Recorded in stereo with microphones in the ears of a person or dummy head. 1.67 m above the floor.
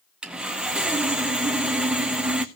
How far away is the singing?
No singing in this recording.